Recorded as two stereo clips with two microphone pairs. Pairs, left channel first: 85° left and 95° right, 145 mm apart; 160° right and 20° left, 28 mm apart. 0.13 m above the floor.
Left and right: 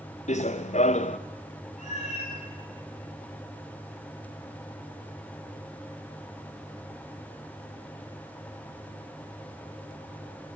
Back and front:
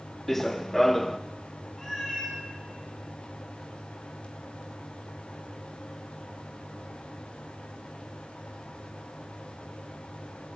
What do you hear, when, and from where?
0.3 s running footsteps: 120° left, 0.9 m
1.8 s a cat meowing: 115° left, 8.5 m